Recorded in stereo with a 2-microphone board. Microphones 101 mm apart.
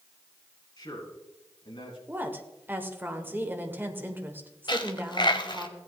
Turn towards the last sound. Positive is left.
turn(degrees=50)  # may be behind; listen again after turning